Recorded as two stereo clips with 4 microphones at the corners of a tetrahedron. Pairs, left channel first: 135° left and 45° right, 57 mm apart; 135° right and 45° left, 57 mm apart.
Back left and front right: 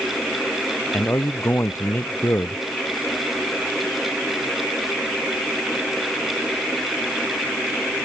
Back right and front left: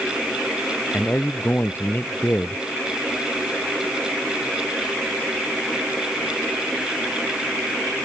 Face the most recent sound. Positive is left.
turn(degrees=175)